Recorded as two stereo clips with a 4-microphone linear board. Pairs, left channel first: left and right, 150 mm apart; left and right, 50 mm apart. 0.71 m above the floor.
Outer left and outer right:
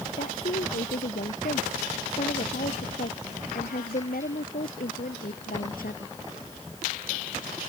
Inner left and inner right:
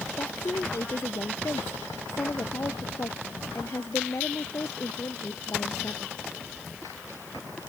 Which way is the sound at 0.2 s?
70° left (ahead or behind).